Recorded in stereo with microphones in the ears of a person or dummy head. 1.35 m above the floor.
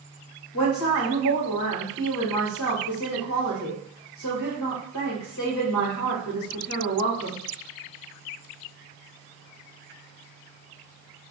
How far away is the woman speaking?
About 1.2 m.